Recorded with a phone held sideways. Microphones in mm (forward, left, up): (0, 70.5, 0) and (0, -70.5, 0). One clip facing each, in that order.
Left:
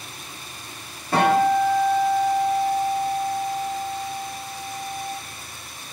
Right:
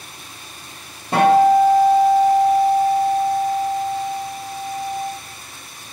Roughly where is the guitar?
Right.